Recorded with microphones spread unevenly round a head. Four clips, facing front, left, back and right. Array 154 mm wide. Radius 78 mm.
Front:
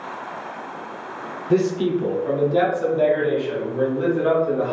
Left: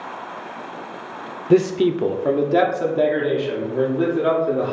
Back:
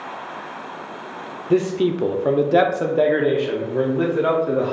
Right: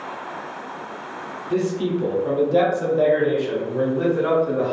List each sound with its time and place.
1.5 s a man speaking: 95° left, 0.5 m; by 4.7 s 170° right, 1.8 m